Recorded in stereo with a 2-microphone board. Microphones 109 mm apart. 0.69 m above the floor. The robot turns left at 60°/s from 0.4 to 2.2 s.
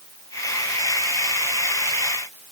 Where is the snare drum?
No snare drum in this recording.